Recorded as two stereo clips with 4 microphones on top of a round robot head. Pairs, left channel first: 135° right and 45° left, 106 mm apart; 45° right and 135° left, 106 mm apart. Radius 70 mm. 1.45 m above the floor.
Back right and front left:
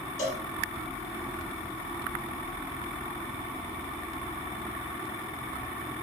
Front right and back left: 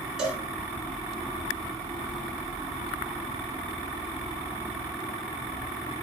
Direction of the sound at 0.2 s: 140° right.